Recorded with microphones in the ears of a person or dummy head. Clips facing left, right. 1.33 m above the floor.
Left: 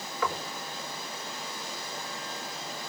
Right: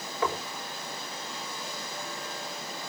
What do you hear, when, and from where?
0.2 s knocking: 25° right (ahead or behind), 4 m